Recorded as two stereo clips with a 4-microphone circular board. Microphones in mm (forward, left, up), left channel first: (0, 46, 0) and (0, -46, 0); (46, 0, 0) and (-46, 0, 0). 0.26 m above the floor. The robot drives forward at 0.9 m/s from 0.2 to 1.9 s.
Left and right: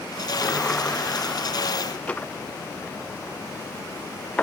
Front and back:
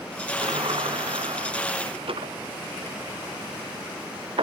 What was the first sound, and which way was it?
A sliding door, 165° left.